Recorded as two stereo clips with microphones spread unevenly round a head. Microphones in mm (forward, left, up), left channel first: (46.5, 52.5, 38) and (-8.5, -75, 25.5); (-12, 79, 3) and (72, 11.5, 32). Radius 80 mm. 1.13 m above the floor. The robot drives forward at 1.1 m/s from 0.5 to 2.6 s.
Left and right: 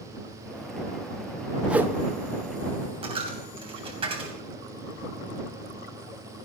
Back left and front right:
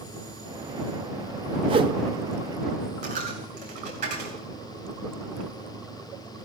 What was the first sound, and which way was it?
A whoosh, 25° right.